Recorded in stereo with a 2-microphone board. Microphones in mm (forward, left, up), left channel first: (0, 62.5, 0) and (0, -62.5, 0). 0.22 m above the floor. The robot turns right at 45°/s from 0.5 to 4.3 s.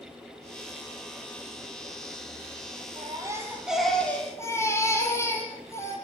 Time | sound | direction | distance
3.0 | a baby crying | 40° right | 4 m